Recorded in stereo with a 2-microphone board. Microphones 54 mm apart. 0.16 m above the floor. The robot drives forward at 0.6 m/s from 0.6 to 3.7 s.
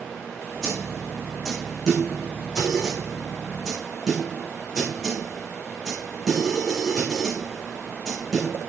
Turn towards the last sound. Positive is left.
turn(degrees=5)  # may be behind; listen again after turning